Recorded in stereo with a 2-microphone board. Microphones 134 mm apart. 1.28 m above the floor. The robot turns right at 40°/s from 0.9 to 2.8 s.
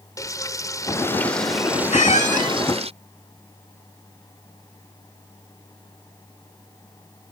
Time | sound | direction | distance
0.2 | frying | 155° left | ?
1.9 | a squeak | 60° left (ahead or behind) | ?